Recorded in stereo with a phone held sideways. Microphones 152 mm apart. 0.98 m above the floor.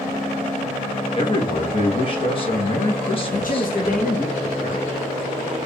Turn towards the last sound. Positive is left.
turn(degrees=65)  # may be behind; listen again after turning